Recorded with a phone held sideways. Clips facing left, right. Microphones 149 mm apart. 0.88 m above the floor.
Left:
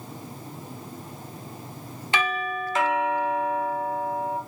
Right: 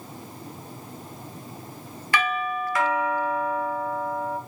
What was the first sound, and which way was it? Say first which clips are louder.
A doorbell: right 1 dB; 25° left (ahead or behind).